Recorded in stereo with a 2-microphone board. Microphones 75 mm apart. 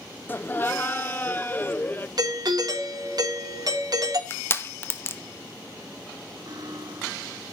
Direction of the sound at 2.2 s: 55° right (ahead or behind).